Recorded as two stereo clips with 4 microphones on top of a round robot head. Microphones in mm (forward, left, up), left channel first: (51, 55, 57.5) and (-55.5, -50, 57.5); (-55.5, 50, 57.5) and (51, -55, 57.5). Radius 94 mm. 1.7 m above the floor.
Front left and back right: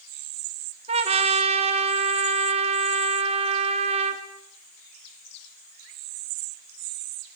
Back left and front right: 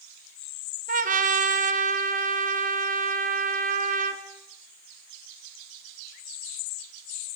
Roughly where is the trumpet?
Right.